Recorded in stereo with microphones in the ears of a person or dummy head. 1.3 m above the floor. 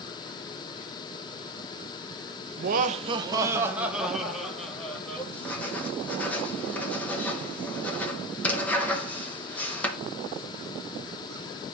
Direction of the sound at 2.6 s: 55° right (ahead or behind).